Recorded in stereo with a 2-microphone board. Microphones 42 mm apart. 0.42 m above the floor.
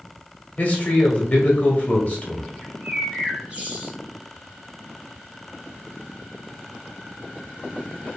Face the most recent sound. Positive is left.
turn(degrees=-30)  # may be behind; listen again after turning